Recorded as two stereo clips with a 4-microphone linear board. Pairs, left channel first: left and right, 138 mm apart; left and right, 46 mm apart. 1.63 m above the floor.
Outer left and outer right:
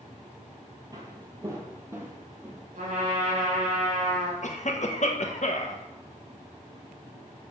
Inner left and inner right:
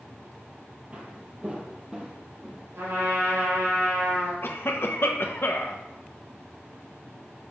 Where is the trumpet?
65° right (ahead or behind), 4.5 m.